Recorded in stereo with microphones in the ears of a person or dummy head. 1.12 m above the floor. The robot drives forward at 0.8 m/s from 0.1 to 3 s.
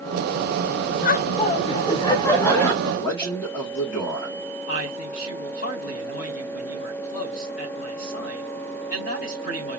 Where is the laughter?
40° left (ahead or behind), 0.5 m; by 2.7 s 15° left (ahead or behind), 1.5 m.